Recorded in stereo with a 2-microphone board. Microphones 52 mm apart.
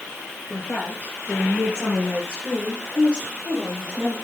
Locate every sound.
0.5 s a woman speaking: 25° left (ahead or behind), 5 m; by 4.1 s 30° right (ahead or behind), 6 m